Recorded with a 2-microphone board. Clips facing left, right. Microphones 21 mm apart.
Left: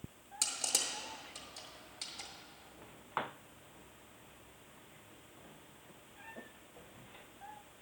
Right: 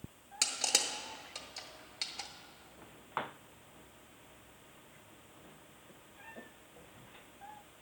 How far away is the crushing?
About 0.8 m.